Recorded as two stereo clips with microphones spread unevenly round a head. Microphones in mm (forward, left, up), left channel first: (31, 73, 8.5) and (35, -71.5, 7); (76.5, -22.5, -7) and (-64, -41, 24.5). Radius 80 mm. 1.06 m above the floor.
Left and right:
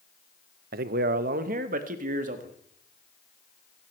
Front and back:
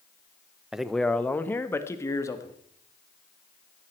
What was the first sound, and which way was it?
A man speaking, 85° right.